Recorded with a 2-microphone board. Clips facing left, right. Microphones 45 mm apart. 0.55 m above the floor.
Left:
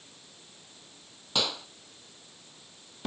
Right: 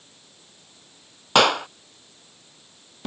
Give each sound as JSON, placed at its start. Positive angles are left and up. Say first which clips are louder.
{"t": 1.4, "sound": "a clap", "louder": "right 14 dB", "side_deg": -65}